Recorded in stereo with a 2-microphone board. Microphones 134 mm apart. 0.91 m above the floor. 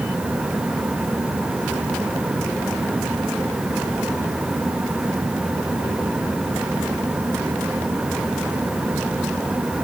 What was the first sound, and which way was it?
Only background noise.